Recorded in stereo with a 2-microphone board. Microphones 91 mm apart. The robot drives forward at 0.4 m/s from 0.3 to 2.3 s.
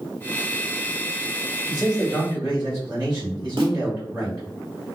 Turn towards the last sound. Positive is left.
turn(degrees=-70)  # may be behind; listen again after turning